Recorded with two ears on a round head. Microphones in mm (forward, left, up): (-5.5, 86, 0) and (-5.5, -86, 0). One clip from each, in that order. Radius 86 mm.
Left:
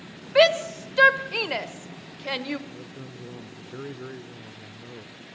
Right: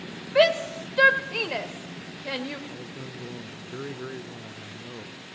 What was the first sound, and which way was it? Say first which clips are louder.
A shout: left 2 dB; 20° left (ahead or behind).